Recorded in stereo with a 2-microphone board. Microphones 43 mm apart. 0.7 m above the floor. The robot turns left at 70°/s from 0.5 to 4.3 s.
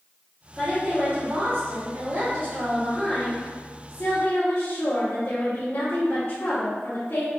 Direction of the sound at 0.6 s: 25° right.